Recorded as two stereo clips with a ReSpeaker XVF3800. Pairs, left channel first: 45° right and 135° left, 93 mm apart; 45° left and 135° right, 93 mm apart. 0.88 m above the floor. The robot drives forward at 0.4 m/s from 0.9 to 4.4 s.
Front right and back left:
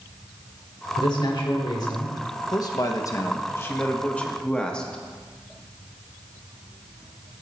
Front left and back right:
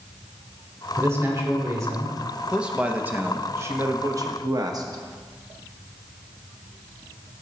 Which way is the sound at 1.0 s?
75° right.